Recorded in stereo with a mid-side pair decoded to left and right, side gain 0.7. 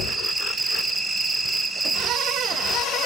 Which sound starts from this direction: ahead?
An insect, at 0.0 s.